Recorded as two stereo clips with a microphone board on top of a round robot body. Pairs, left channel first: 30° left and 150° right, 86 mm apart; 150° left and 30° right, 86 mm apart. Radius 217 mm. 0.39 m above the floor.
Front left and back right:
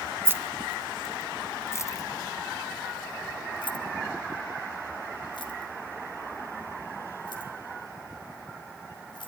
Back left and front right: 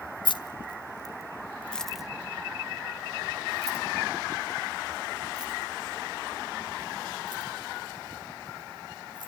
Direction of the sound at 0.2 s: 150° left.